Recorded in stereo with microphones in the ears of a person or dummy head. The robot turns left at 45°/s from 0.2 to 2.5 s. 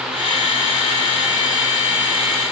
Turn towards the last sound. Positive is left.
No sound to turn to.